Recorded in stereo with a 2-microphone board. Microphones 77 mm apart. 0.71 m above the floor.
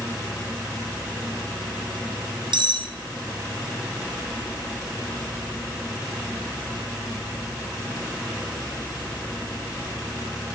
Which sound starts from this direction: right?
Cutlery clinking, at 2.5 s.